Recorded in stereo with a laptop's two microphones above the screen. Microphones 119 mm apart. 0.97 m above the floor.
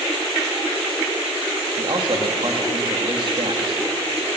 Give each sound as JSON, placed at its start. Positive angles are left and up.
{"t": 1.8, "sound": "a man speaking", "side_deg": -45, "distance_m": 1.9}